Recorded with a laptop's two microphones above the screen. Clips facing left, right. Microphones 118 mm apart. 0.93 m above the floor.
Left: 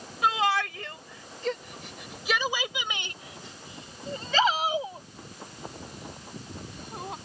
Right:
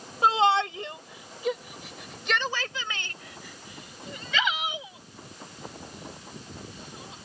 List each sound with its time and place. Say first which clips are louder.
0.2 s a shout: right 4 dB; 30° right (ahead or behind); by 7.2 s 55° left (ahead or behind)